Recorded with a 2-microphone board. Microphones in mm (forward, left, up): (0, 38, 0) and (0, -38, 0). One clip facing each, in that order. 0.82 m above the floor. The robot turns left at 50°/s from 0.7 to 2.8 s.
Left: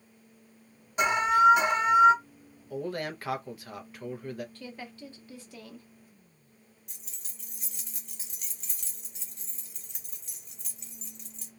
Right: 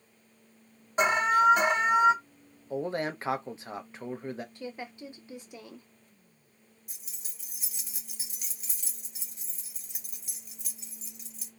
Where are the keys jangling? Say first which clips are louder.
Left 1 dB; 5° right (ahead or behind), 1.0 m.